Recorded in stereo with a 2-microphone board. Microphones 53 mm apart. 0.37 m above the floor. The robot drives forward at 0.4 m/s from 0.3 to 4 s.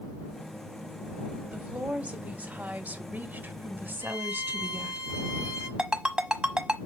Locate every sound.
1.5 s a woman speaking: 25° right (ahead or behind), 1.5 m; by 5.0 s 40° right (ahead or behind), 1.0 m
4.0 s a violin: 75° left (ahead or behind), 6.5 m
5.8 s a ringtone: 15° right (ahead or behind), 1.1 m